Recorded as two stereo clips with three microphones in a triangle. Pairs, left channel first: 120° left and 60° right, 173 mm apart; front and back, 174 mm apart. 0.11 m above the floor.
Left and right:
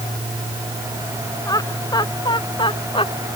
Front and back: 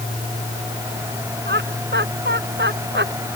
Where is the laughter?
170° right; by 3.3 s 175° left.